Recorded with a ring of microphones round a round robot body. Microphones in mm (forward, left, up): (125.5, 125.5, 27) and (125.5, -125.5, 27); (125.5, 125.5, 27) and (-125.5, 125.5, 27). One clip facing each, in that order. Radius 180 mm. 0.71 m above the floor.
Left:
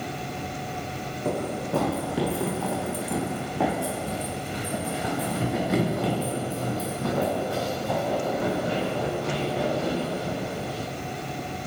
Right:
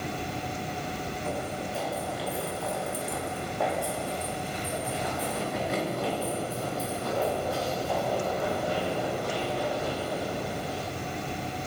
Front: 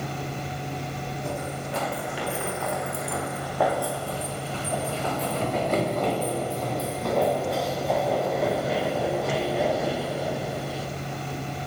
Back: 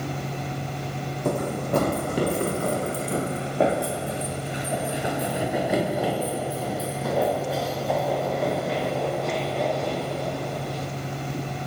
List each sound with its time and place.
1.2 s running footsteps: 150° left, 1.9 m; by 10.9 s 85° left, 6 m